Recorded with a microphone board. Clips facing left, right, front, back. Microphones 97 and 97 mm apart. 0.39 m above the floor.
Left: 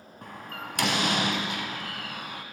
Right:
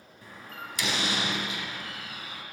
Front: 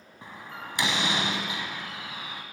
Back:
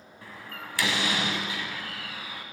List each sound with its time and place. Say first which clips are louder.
0.2 s a door slam: left 4 dB, front 1 dB; 70° left, 1.9 m